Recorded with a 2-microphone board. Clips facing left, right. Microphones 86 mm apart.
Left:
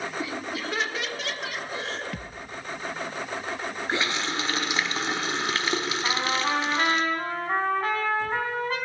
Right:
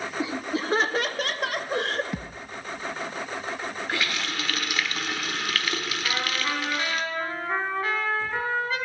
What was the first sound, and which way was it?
Laughter, 20° right (ahead or behind).